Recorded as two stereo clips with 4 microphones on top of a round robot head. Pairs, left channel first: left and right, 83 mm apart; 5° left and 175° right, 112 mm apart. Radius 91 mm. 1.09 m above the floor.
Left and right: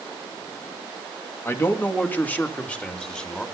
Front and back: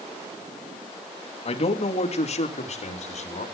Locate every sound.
1.4 s a man speaking: 30° left, 2.5 m; by 3.5 s 10° left, 3.5 m